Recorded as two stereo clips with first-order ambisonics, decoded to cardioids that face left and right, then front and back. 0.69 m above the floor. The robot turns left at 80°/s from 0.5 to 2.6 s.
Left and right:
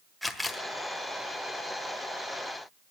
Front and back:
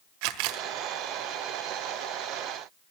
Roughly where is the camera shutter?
Behind.